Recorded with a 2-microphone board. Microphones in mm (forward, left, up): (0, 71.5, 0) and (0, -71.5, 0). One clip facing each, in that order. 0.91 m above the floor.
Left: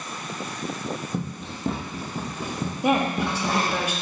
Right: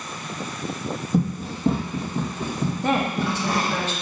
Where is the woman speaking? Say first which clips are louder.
Left 2 dB; 10° left (ahead or behind), 1.2 m.